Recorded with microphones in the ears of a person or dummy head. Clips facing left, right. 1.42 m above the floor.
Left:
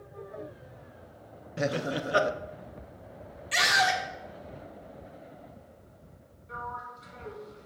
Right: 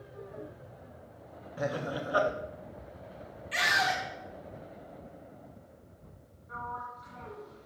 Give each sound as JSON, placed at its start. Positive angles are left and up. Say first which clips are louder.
{"t": 1.6, "sound": "laughter", "louder": "left 4 dB", "side_deg": 30, "distance_m": 0.7}
{"t": 3.5, "sound": "a scream", "louder": "left 4 dB", "side_deg": 60, "distance_m": 2.5}
{"t": 6.5, "sound": "a sliding door", "louder": "left 1 dB", "side_deg": 40, "distance_m": 2.5}